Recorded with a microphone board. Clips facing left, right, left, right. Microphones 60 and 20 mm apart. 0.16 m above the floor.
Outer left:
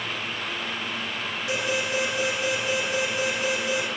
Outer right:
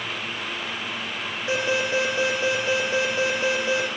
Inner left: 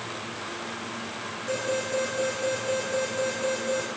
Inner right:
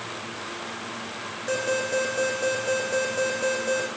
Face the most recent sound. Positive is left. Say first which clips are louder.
# outer right 4 dB, inner right 3 dB
turn(degrees=-30)  # may be behind; listen again after turning